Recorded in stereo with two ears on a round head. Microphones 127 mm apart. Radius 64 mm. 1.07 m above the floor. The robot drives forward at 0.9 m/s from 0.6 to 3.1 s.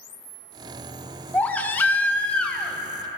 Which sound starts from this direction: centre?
A baby crying, at 1.3 s.